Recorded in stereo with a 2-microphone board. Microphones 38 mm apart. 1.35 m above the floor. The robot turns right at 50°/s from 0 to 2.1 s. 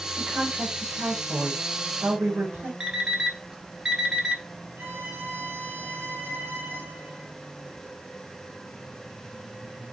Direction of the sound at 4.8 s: 70° right (ahead or behind).